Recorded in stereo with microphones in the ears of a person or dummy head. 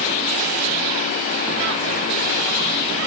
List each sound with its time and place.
Only background noise.